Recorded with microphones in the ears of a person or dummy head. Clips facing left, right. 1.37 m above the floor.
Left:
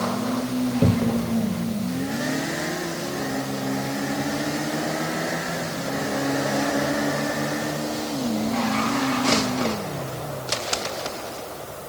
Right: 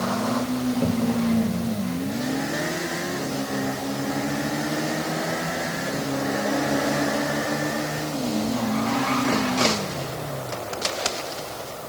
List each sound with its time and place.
0.8 s a cupboard door: 40° left (ahead or behind)